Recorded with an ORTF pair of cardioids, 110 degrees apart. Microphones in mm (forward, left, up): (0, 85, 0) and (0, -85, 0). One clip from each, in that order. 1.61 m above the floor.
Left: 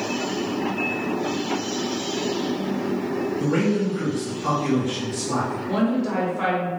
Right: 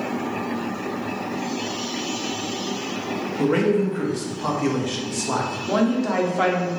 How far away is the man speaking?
About 1.2 m.